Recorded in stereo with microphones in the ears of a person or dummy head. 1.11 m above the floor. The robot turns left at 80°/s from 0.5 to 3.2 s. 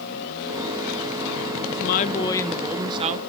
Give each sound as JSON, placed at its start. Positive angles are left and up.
{"t": 1.7, "sound": "a woman speaking", "azimuth_deg": 70, "distance_m": 0.8}